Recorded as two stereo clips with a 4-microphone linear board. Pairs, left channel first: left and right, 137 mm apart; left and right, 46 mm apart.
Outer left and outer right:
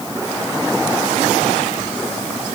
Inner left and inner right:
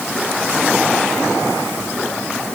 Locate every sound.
Only background noise.